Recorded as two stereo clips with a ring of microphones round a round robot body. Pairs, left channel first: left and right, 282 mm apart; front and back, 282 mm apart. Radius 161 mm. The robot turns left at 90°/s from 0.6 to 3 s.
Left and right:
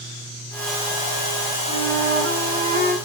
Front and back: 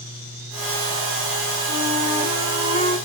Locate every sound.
1.7 s a flute: 15° right, 2.0 m; by 3.0 s 125° right, 2.0 m